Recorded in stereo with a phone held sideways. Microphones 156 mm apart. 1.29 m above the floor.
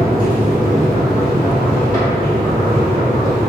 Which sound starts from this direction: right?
A machine running, at 0.0 s.